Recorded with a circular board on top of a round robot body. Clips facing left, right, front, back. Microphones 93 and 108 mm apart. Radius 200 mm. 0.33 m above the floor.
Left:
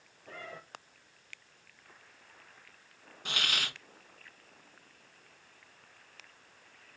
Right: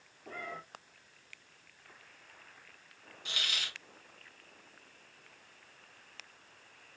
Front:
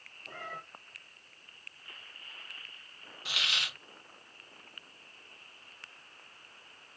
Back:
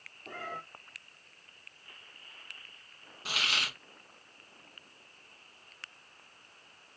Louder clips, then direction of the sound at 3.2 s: Left 5 dB, back 3 dB; 130° left.